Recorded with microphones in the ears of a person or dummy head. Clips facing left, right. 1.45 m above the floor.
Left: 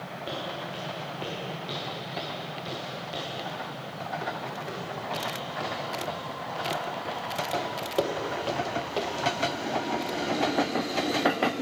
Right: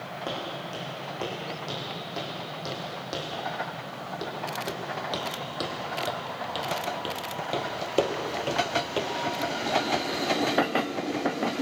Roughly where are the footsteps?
Right.